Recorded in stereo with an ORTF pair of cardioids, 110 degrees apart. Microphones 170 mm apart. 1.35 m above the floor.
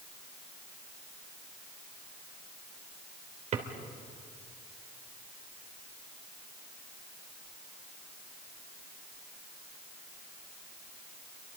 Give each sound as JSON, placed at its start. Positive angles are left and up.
{"t": 3.5, "sound": "a drawer", "azimuth_deg": -50, "distance_m": 2.5}